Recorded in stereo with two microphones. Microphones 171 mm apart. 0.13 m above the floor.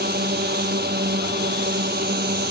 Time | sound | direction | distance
0.0 | a drone | 70° right (ahead or behind) | ?